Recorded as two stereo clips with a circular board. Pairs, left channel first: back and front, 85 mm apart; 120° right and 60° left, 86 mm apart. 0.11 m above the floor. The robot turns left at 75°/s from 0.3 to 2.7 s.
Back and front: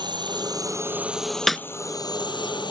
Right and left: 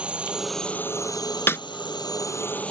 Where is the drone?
15° right; by 2.7 s 165° left.